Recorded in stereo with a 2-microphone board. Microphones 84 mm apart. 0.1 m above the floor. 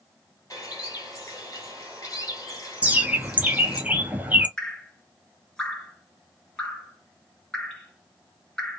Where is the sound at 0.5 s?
45° left (ahead or behind), 1.8 m.